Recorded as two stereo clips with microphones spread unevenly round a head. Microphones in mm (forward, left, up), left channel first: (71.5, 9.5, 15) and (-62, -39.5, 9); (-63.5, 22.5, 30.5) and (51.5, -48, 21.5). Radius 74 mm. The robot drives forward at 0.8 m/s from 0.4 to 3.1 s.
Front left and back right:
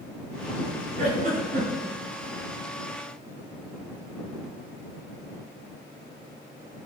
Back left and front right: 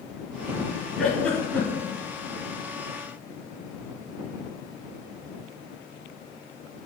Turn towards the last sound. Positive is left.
turn(degrees=-155)